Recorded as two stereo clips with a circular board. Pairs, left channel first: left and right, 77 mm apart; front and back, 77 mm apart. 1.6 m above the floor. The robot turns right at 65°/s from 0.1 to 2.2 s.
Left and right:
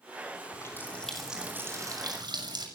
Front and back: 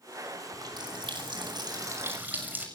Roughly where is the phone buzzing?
I don't hear a phone buzzing.